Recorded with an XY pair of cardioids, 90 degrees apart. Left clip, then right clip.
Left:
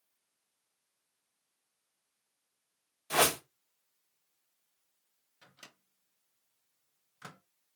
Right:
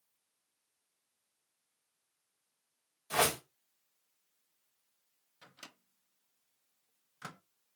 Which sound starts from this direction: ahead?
A microwave, at 5.4 s.